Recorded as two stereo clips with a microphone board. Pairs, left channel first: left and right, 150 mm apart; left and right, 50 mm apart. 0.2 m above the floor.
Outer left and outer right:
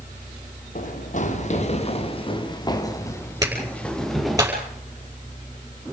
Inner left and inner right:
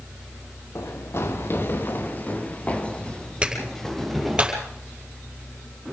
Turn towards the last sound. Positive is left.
turn(degrees=-25)  # may be behind; listen again after turning